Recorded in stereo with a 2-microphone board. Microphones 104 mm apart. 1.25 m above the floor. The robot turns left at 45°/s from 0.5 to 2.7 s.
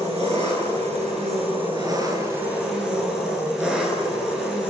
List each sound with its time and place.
0.0 s an engine running: 75° right, 8.5 m; by 4.7 s 175° right, 8.5 m